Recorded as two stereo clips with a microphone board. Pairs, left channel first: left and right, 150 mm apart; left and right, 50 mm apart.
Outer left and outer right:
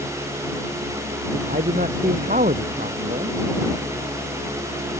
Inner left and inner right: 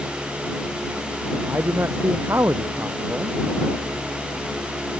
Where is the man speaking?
60° right (ahead or behind).